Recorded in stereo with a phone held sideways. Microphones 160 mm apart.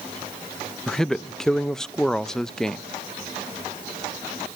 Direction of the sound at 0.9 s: 5° left (ahead or behind).